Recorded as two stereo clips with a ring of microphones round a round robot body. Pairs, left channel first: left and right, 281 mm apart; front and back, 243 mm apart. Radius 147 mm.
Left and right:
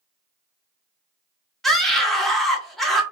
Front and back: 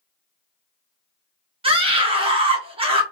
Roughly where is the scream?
Behind.